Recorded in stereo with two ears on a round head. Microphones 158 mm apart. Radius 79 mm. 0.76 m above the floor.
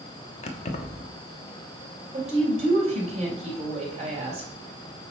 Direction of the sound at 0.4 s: 35° left (ahead or behind).